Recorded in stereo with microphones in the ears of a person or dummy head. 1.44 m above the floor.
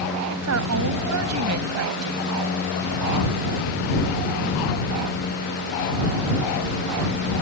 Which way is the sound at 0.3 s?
90° right.